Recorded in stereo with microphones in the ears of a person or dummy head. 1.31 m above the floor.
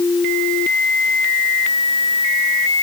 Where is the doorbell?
I don't hear a doorbell.